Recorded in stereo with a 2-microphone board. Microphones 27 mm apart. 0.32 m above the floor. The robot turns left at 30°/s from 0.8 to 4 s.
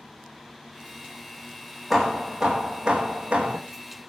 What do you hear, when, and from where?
1.9 s hammering: 5° right, 4.5 m; by 3.6 s 55° right, 4.5 m